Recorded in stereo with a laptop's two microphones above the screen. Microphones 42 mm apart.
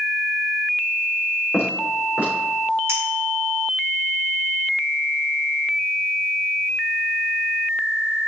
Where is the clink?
85° right, 2.0 m.